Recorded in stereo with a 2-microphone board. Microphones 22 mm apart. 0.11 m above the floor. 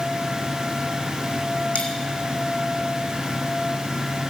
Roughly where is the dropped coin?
Left.